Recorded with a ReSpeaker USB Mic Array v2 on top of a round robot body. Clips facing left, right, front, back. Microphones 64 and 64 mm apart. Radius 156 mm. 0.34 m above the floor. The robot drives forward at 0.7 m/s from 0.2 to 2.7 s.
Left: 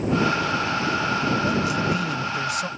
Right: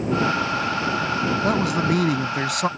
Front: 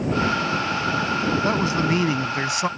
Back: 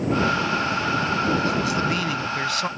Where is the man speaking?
60° right; by 2.7 s 70° right.